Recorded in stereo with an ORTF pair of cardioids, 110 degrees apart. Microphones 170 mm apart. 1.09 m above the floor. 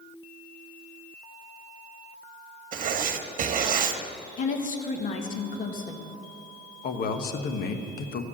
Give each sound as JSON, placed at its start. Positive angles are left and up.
{"t": 2.7, "sound": "writing", "azimuth_deg": -50, "distance_m": 1.1}
{"t": 4.4, "sound": "a woman speaking", "azimuth_deg": 55, "distance_m": 1.6}
{"t": 6.8, "sound": "a man speaking", "azimuth_deg": 65, "distance_m": 1.1}